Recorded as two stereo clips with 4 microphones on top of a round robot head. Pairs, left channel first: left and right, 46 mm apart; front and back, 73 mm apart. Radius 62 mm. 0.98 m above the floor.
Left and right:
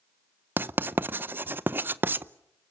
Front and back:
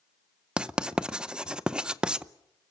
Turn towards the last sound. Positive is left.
turn(degrees=-105)